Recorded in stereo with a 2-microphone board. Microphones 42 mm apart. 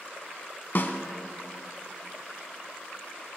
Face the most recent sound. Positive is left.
turn(degrees=50)  # may be behind; listen again after turning